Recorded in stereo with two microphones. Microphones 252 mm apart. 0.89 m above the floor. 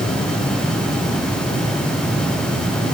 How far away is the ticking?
No ticking in this recording.